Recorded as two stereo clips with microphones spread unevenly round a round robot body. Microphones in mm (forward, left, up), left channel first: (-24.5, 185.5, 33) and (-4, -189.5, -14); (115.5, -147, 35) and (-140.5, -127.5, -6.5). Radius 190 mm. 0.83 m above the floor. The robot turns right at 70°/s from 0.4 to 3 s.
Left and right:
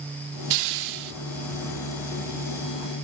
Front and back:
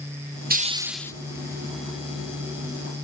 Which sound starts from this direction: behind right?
A hiss, at 0.5 s.